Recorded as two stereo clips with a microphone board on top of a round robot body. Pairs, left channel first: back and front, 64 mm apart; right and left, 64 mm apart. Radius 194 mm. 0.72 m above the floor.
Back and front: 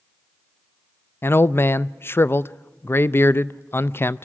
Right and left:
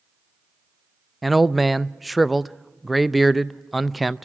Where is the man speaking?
Straight behind, 0.6 m.